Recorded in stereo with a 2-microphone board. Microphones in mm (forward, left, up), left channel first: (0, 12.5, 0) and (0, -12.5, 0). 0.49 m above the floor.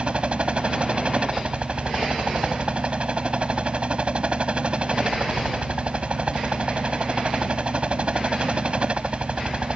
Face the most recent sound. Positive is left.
turn(degrees=-50)  # may be behind; listen again after turning